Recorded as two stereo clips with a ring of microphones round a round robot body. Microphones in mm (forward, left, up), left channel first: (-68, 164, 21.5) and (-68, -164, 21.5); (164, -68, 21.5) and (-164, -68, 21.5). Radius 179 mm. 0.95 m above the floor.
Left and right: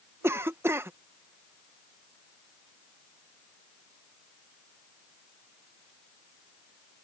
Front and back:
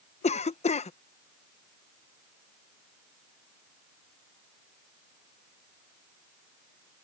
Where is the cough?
20° right.